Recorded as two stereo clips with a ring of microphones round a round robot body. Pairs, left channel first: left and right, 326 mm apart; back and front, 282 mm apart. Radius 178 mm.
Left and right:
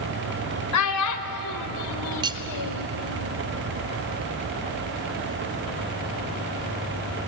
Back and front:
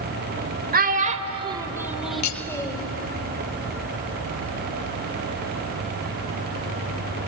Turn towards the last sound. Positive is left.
turn(degrees=-165)